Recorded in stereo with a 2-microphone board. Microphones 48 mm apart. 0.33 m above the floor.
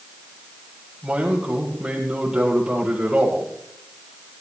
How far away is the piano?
I don't hear a piano.